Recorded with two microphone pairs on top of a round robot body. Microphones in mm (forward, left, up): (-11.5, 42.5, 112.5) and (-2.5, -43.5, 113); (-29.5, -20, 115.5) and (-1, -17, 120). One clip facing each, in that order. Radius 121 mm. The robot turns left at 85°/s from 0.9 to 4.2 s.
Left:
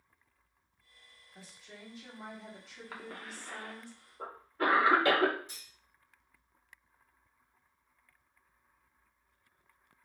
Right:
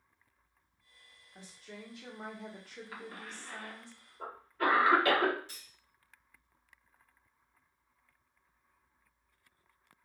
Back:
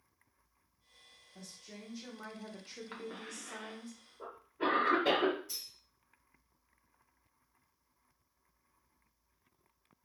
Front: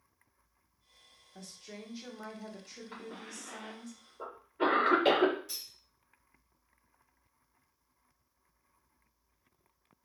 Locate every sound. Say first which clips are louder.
1.4 s a woman speaking: right 3 dB, front 4 dB; 10° right, 1.4 m; by 3.9 s 130° left, 1.4 m
2.9 s a cough: left 2 dB, even; 145° left, 1.9 m; by 5.3 s 35° left, 1.9 m
5.5 s cutlery clinking: left 1 dB, front 1 dB; 25° left, 2 m